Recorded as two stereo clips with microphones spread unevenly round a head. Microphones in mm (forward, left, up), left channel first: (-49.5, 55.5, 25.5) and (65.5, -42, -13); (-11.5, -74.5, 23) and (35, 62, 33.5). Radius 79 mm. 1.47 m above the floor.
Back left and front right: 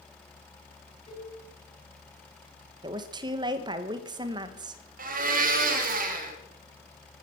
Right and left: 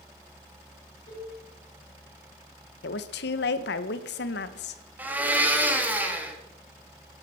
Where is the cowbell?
160° right, 8 m.